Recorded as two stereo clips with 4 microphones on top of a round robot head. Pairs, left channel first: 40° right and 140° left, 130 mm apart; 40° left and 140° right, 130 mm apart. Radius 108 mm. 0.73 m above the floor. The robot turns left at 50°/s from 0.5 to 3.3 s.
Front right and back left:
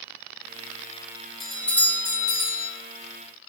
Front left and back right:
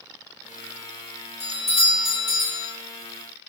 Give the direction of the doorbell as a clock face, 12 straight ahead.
10 o'clock.